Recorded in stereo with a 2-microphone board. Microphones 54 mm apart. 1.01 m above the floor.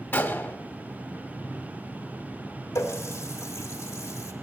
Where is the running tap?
80° left, 1.9 m.